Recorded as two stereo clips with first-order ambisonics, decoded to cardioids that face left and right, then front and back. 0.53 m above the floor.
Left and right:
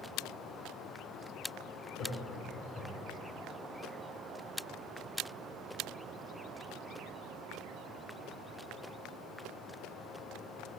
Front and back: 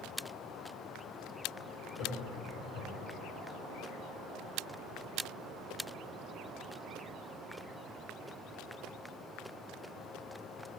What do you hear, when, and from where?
2.0 s laughter: 40° left, 1.9 m; by 3.1 s 15° left, 2.5 m